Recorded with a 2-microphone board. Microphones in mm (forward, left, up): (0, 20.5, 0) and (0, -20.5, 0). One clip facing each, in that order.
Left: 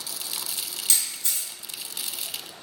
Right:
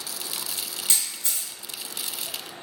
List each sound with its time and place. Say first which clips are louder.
0.9 s a camera shutter: left 1 dB; 20° right (ahead or behind), 1.7 m